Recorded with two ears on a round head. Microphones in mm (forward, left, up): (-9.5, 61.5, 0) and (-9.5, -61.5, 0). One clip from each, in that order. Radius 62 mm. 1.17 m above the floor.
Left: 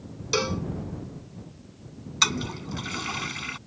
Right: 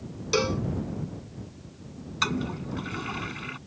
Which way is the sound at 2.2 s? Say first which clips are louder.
Left 4 dB; 75° left (ahead or behind).